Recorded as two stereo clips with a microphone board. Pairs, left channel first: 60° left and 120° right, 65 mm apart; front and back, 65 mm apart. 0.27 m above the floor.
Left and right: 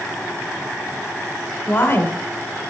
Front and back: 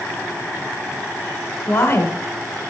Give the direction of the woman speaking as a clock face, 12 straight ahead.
11 o'clock.